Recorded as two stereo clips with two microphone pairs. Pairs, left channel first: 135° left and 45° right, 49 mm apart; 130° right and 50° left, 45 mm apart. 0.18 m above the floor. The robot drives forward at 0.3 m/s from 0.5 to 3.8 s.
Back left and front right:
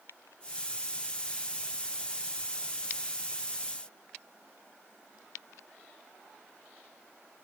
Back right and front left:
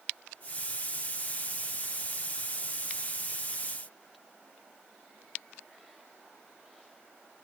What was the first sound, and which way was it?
Only background noise.